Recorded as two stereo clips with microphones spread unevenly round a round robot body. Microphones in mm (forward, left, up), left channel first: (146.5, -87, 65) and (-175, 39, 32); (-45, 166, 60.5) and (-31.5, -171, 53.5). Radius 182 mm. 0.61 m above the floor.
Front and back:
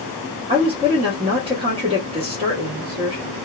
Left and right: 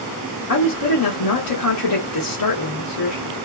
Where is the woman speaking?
90° left, 1.1 m.